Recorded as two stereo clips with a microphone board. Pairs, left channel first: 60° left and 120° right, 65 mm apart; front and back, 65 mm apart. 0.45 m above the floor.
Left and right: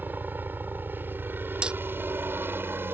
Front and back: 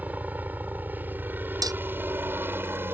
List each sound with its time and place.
0.0 s a helicopter: 145° right; by 2.9 s 150° right
1.6 s hammering: 165° left